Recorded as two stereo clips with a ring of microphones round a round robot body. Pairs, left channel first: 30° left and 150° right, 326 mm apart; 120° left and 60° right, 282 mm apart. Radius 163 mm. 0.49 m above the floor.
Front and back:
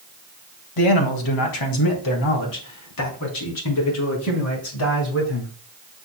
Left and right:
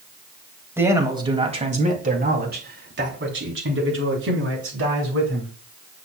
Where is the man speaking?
20° left, 3 m; by 5.5 s 20° right, 7 m.